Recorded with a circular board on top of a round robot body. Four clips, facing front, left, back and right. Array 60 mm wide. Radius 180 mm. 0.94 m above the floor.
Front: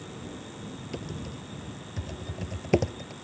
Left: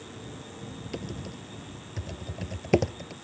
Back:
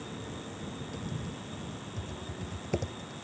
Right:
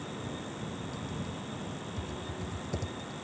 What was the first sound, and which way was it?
Typing on a keyboard, 60° left.